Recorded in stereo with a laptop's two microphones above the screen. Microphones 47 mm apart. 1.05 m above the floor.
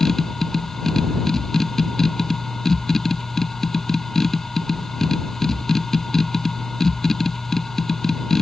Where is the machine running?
10° left (ahead or behind).